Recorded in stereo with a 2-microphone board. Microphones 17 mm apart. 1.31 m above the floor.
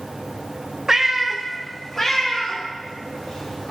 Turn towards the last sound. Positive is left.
turn(degrees=50)  # may be behind; listen again after turning